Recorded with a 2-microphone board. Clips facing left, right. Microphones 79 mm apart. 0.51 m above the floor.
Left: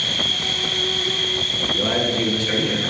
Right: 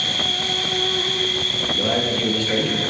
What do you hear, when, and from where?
0.0 s an insect: 40° right (ahead or behind), 1.0 m
1.7 s a man speaking: 20° left (ahead or behind), 5 m